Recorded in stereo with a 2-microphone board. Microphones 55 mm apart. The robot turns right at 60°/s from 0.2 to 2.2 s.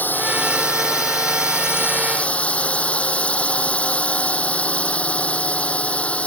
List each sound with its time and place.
0.0 s a drone: 35° left; by 6.3 s 155° left